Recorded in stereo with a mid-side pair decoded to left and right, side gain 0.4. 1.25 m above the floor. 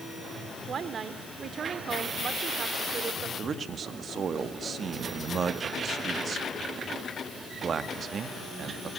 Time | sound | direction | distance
0.7 | a woman speaking | 55° right | 3 m
3.4 | a man speaking | 55° right | 1.9 m